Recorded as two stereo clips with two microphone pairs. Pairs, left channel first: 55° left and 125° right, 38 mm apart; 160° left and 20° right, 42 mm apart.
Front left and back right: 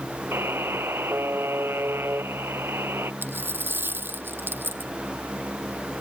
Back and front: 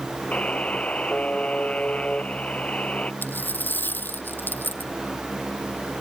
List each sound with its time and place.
0.3 s a buzzer: 135° right
3.2 s a dropped coin: 155° right